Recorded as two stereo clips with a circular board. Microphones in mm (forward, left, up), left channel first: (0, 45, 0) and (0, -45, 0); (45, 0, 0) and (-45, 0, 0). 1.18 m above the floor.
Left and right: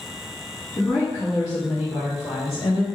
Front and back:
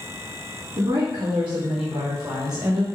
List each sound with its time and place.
0.8 s a woman speaking: 160° left, 1.7 m; by 2.9 s 110° left, 1.3 m